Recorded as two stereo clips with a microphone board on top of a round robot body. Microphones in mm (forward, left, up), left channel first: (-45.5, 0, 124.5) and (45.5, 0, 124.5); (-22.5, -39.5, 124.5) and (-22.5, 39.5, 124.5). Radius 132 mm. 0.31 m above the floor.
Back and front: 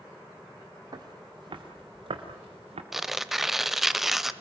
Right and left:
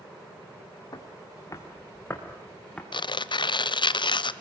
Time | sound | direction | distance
0.9 | footsteps | 45° right | 3.5 m
2.9 | tearing paper | 85° right | 1.0 m